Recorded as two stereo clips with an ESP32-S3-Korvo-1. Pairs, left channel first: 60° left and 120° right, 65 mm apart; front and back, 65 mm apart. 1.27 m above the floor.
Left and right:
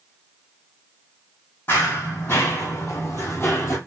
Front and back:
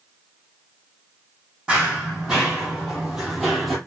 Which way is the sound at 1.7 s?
105° left.